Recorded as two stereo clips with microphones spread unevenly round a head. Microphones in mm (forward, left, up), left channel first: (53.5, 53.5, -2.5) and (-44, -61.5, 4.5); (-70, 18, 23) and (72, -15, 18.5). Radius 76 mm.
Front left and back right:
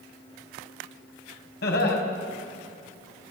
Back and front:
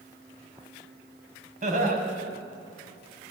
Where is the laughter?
25° left, 6 m.